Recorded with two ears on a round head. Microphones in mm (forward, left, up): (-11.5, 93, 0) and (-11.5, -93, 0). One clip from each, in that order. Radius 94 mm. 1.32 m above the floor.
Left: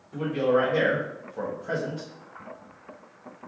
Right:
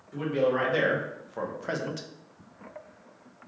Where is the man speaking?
30° right (ahead or behind), 1.2 m; by 2.1 s 70° right (ahead or behind), 0.5 m.